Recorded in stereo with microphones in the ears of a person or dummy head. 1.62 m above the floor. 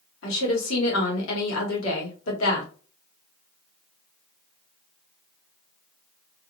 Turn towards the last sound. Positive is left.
turn(degrees=85)